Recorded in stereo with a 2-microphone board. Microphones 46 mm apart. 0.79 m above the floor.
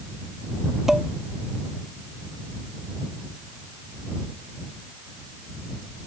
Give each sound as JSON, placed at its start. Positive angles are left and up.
{"t": 0.9, "sound": "dishes clattering", "side_deg": -10}